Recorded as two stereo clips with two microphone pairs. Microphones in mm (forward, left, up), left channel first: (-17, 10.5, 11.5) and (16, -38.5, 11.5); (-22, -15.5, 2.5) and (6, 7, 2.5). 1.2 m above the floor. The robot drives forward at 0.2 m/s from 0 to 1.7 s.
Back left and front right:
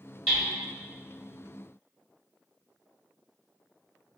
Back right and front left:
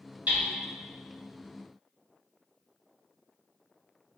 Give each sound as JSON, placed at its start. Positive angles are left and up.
{"t": 0.3, "sound": "hammering", "azimuth_deg": 45, "distance_m": 1.2}